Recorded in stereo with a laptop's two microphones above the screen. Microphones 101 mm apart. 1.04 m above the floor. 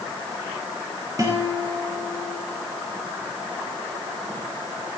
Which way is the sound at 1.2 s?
35° right (ahead or behind).